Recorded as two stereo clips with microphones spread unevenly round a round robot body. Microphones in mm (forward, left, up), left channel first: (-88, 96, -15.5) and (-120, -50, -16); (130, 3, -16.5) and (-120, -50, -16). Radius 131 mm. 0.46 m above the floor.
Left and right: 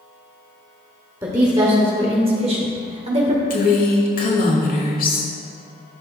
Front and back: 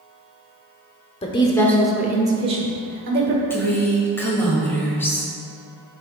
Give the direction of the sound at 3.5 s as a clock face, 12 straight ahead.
9 o'clock.